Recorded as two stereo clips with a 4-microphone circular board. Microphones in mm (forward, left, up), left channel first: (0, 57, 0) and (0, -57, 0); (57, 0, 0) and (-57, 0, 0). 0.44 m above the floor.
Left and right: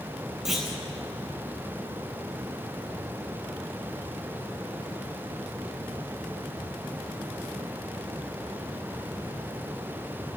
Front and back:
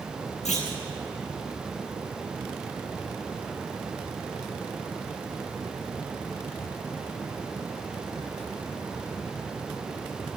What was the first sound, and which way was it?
A clunk, straight ahead.